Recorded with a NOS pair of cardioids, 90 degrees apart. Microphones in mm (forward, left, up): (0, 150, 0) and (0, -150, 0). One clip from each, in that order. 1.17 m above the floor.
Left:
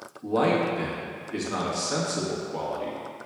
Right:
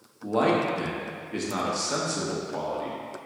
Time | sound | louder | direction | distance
0.2 | a man speaking | even | straight ahead | 1.0 m